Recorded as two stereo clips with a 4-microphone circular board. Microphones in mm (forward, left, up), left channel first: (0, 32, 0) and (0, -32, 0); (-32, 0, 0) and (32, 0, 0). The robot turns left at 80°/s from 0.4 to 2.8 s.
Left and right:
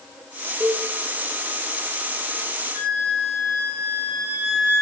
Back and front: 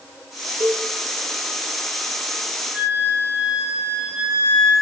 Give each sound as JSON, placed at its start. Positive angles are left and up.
{"t": 0.6, "sound": "a cowbell", "azimuth_deg": -25, "distance_m": 1.3}
{"t": 2.7, "sound": "a flute", "azimuth_deg": 75, "distance_m": 3.0}